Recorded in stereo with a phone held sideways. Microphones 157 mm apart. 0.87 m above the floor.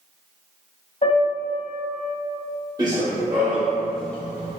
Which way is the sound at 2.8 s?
25° right (ahead or behind).